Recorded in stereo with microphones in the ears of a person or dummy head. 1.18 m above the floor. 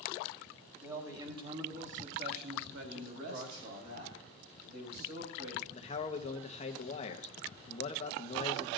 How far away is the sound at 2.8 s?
About 5.5 m.